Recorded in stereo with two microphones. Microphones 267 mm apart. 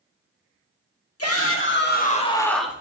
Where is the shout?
60° left (ahead or behind), 1.9 m; by 2.8 s 10° right (ahead or behind), 1.5 m.